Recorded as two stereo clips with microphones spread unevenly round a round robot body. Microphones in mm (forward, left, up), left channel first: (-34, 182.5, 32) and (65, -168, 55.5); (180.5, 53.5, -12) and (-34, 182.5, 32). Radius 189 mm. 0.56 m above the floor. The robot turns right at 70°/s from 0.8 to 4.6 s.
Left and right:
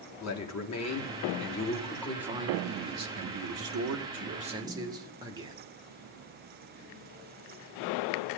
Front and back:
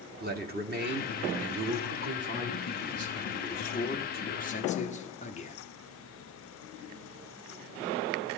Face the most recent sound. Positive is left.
turn(degrees=5)